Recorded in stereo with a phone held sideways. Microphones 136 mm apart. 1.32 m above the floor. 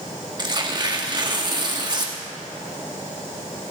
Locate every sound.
0.4 s tearing paper: 30° right (ahead or behind), 1.3 m